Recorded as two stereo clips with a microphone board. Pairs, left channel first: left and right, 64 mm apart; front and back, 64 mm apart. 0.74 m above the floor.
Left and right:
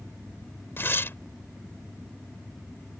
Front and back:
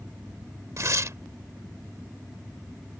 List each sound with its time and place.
0.8 s tearing paper: 145° left